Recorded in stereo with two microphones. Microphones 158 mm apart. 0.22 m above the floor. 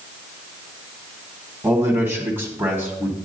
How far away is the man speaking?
About 1.6 m.